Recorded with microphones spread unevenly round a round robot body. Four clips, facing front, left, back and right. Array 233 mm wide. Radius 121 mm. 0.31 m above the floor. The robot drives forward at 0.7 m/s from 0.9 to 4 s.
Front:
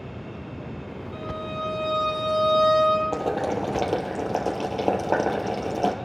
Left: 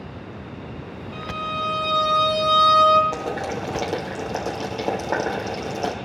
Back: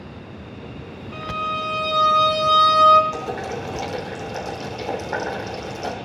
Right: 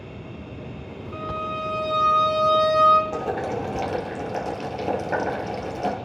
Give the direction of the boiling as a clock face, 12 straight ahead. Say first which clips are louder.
Right 1 dB, front 3 dB; 11 o'clock.